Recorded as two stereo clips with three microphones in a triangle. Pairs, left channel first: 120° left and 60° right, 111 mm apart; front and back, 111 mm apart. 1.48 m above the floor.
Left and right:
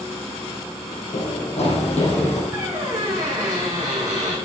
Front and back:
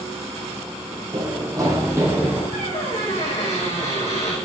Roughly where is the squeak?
Ahead.